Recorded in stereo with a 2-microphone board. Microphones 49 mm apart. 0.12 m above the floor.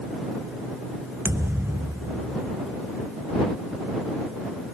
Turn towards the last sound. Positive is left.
turn(degrees=-70)  # may be behind; listen again after turning